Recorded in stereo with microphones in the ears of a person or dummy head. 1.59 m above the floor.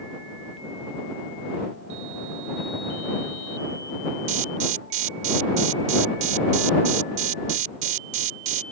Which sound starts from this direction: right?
An alarm, at 4.3 s.